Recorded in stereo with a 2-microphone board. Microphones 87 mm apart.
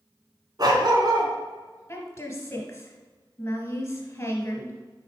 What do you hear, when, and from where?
0.6 s a dog barking: 50° right (ahead or behind), 1.5 m
1.9 s a woman speaking: 30° left (ahead or behind), 1.8 m